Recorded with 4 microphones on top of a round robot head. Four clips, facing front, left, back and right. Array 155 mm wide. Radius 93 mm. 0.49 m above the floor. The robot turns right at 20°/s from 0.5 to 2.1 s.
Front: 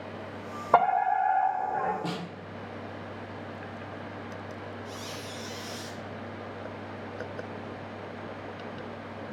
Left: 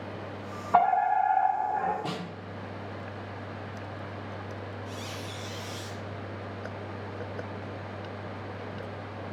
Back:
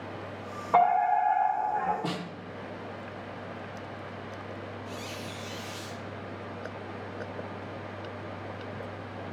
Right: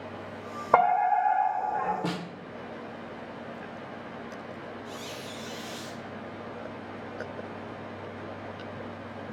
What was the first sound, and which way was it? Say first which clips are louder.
A fire alarm: right 1 dB, even; 60° right.